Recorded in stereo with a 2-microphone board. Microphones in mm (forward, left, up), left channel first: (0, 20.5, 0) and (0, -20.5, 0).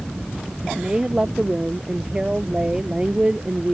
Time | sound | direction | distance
0.8 | a woman speaking | 20° right (ahead or behind) | ?